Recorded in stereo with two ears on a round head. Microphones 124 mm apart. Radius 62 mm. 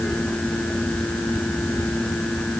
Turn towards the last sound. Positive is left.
No sound to turn to.